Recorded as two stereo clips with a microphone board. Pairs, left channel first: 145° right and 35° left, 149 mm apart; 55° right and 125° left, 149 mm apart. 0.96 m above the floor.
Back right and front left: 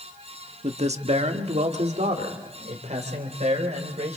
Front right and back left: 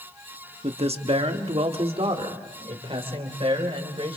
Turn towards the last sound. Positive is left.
turn(degrees=70)